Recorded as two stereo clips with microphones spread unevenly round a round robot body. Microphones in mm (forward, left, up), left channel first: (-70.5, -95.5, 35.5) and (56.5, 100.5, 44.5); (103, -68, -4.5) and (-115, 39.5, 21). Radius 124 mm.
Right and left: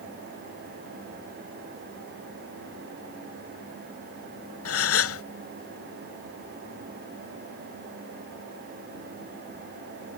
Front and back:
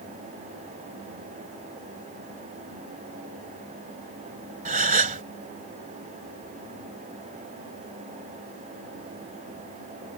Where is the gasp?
145° right.